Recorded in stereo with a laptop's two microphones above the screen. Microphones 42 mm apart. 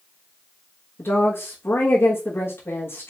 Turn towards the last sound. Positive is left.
turn(degrees=65)  # may be behind; listen again after turning